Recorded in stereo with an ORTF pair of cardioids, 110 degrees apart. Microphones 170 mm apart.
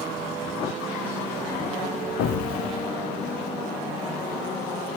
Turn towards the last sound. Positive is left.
turn(degrees=65)